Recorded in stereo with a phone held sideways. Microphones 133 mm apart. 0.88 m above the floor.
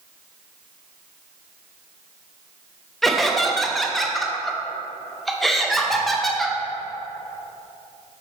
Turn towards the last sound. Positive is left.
turn(degrees=0)  # may be behind; listen again after turning